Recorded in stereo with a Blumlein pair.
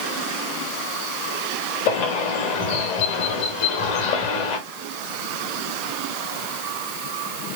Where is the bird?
45° left, 2.5 m.